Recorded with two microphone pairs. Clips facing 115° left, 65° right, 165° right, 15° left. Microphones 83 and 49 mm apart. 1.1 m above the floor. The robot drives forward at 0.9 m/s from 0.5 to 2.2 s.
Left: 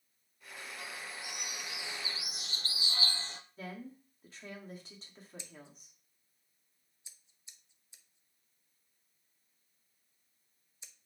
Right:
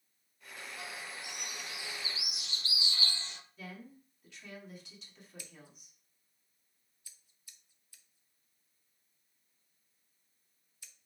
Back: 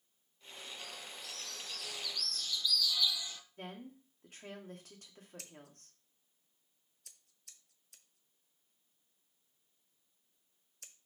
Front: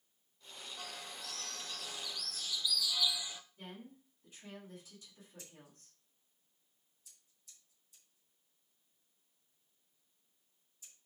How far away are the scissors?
About 0.7 m.